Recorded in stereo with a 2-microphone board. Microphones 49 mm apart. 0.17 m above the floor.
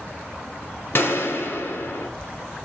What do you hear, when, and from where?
0.9 s a gunshot: 50° left (ahead or behind), 1.1 m